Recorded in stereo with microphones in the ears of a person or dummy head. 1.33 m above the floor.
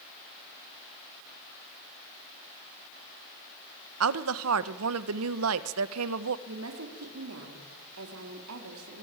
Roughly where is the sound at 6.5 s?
Right.